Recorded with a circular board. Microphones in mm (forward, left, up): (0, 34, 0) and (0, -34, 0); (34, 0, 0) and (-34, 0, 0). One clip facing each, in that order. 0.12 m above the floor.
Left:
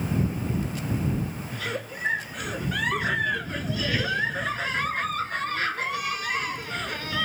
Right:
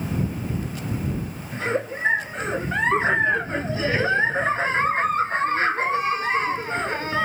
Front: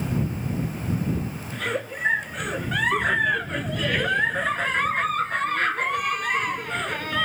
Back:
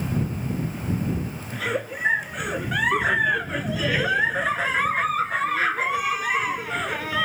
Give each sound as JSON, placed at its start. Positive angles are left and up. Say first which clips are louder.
{"t": 1.5, "sound": "a giggle", "louder": "right 11 dB, back 2 dB", "azimuth_deg": -100}